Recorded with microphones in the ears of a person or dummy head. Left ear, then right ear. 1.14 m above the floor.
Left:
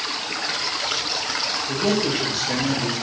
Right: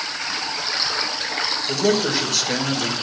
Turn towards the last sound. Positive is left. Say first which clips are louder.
# right 3 dB
turn(degrees=-60)  # may be behind; listen again after turning